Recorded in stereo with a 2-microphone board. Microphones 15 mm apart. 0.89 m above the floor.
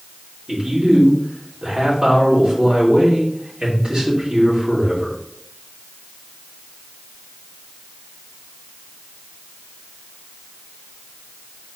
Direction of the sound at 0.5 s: 75° right (ahead or behind).